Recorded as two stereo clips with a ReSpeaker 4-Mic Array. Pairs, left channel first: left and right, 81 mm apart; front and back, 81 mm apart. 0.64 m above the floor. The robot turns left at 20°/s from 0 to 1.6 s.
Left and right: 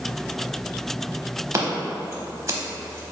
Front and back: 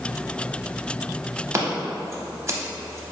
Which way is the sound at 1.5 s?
135° right.